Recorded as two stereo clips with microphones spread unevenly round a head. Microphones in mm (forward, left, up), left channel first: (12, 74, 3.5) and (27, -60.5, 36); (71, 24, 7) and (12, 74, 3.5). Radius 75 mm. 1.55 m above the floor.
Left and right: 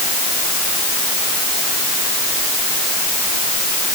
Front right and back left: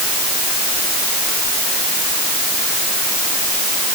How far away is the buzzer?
No buzzer in this recording.